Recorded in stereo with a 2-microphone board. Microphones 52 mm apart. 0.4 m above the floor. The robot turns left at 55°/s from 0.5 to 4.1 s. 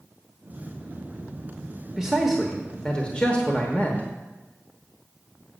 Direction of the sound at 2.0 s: 160° right.